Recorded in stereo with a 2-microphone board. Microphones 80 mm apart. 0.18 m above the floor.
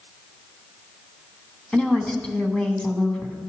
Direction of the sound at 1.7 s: 15° left (ahead or behind).